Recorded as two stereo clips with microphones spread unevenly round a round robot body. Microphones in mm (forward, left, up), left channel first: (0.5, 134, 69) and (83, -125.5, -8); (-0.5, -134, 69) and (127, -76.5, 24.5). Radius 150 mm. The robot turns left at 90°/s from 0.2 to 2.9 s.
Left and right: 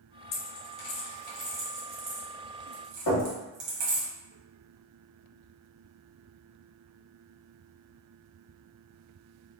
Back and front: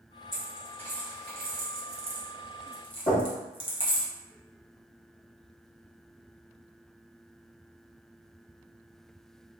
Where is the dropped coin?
130° left, 1.2 m; by 4.1 s 100° right, 1.2 m.